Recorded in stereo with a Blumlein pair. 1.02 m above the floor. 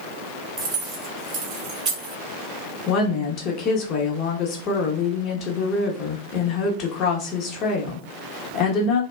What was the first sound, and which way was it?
Keys jangling, 35° right.